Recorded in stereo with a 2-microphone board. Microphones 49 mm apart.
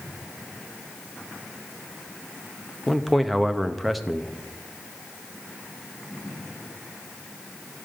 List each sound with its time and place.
2.9 s a man speaking: centre (ahead or behind), 0.7 m